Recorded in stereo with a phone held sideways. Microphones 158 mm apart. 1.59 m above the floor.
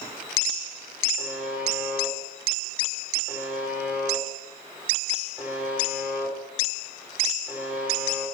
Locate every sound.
1.2 s a buzzer: 10° right (ahead or behind), 6.5 m